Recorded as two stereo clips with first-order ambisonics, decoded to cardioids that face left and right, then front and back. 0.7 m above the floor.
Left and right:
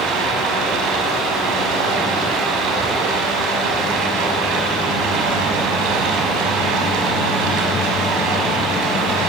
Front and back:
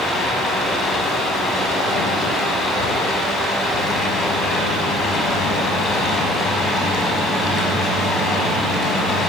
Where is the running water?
65° right, 5 m.